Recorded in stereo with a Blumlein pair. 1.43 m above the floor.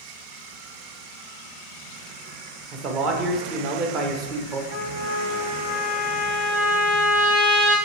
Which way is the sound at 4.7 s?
65° right.